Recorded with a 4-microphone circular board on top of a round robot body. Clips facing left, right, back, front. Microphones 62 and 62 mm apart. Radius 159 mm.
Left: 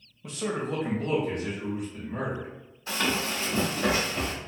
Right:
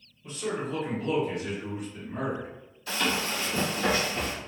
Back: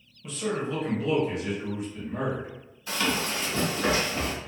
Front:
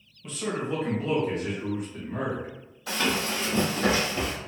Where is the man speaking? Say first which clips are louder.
Left 1 dB, back 1 dB; 90° left, 0.9 m; by 2.5 s 35° left, 1.9 m.